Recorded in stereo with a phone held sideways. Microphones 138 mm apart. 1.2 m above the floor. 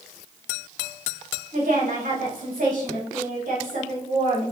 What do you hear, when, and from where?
1.5 s a woman speaking: 80° right, 4 m